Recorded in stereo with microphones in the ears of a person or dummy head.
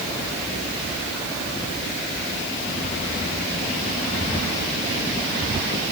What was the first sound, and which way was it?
Only background noise.